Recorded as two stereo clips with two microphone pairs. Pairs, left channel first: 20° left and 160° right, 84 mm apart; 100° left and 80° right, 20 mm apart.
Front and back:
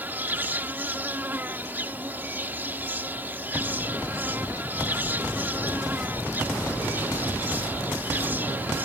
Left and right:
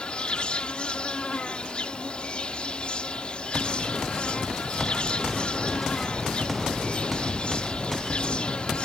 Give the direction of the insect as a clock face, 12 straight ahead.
8 o'clock.